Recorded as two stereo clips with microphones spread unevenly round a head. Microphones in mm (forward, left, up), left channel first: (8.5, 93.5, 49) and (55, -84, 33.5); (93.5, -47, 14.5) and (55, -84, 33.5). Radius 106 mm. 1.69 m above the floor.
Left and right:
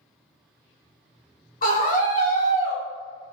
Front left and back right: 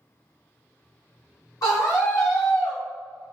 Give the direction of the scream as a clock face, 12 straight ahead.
10 o'clock.